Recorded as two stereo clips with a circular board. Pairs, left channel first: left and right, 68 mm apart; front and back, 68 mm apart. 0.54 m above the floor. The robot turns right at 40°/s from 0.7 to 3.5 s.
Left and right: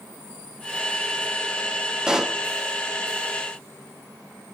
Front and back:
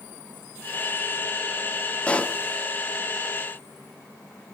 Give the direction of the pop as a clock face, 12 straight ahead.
1 o'clock.